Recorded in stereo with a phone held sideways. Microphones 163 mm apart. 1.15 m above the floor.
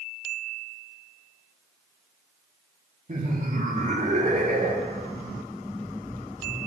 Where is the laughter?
55° right (ahead or behind), 2.5 m.